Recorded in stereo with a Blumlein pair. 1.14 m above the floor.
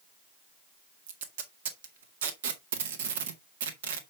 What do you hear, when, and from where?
1.1 s tape being pulled: 60° right, 1.7 m